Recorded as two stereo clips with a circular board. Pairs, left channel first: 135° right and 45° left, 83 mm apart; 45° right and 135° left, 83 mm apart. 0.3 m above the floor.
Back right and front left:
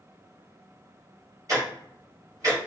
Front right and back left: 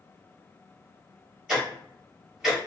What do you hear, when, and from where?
1.5 s ticking: 55° left, 1.7 m